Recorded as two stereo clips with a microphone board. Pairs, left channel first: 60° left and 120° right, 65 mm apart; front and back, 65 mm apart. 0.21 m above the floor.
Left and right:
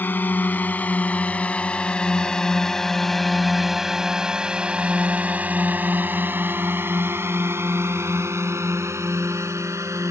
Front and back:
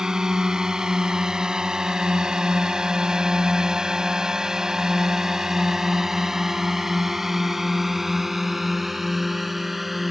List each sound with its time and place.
0.0 s a drone: 105° left; by 10.1 s 90° right